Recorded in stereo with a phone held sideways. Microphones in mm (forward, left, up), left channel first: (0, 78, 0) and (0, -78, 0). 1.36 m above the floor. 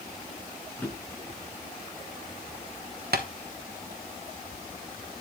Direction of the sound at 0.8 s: 10° left (ahead or behind).